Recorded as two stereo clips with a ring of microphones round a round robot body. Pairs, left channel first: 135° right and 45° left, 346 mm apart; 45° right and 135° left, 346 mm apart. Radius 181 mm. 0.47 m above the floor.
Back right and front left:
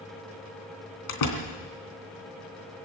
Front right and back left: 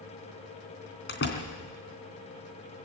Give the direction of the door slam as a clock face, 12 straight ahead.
3 o'clock.